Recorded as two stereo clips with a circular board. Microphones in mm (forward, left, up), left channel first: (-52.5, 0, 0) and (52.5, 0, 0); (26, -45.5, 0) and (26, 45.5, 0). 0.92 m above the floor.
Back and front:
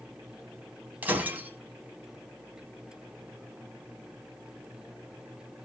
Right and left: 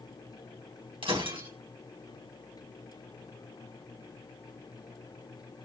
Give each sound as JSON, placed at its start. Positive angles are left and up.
{"t": 1.0, "sound": "breaking glass", "azimuth_deg": 75, "distance_m": 4.0}